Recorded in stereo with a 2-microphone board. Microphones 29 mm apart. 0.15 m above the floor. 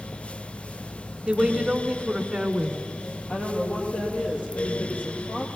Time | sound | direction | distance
1.3 | a woman speaking | 30° right (ahead or behind) | 1.1 m
3.3 | a woman speaking | 65° left (ahead or behind) | 3.5 m